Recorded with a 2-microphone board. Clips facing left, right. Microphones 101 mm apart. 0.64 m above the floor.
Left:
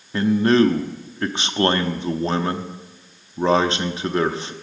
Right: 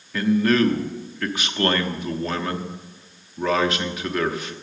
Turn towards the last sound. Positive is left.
turn(degrees=30)  # may be behind; listen again after turning